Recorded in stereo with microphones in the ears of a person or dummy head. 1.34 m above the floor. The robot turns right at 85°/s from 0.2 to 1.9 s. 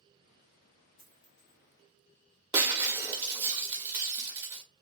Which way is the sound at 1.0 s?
30° left (ahead or behind).